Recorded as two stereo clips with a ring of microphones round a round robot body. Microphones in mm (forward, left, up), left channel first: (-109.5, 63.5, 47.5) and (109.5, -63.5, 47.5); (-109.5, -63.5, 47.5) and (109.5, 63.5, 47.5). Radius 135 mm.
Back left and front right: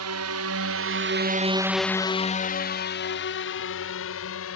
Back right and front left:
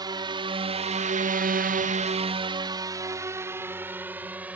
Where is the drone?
45° right; by 4.6 s 115° left.